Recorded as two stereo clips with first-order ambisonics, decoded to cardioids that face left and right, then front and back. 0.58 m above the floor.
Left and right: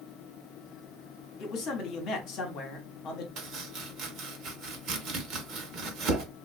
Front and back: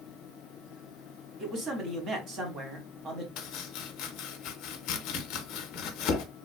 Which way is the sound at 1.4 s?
125° left.